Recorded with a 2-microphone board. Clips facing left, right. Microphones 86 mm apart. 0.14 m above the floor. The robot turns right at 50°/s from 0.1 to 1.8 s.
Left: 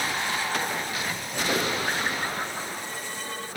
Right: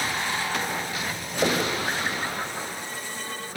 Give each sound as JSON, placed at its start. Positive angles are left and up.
{"t": 1.4, "sound": "knocking", "side_deg": -55, "distance_m": 7.5}